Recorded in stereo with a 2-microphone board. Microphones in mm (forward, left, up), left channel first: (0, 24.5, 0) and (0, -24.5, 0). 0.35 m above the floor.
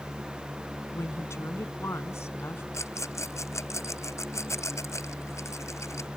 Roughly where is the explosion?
No explosion in this recording.